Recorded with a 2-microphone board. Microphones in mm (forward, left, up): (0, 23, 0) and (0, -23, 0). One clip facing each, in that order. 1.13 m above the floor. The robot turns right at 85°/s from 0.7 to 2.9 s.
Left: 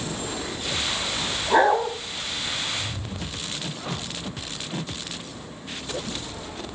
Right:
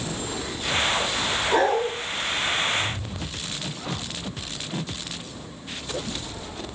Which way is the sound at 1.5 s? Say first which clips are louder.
Left 3 dB; 10° left.